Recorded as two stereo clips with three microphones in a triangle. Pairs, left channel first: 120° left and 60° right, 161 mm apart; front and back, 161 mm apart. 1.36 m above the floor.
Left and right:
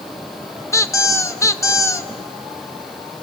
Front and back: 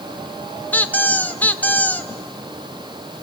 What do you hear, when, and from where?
0.7 s a squeak: 70° left, 0.8 m